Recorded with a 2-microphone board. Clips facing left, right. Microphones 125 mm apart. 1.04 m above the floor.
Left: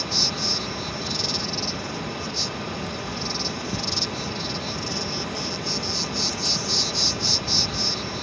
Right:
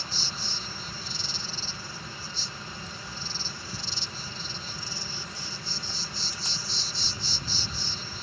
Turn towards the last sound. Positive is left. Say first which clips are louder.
# left 10 dB
turn(degrees=70)  # may be behind; listen again after turning